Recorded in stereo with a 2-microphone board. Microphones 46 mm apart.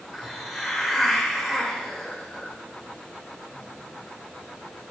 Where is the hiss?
5° right (ahead or behind), 1.1 m.